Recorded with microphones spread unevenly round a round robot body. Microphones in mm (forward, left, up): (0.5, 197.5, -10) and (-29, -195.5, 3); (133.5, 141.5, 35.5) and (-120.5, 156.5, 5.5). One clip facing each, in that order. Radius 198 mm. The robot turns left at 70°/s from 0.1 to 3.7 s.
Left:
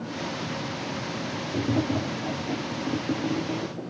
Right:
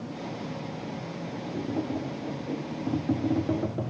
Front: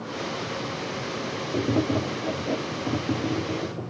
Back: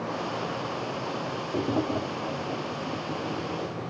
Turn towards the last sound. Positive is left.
turn(degrees=-70)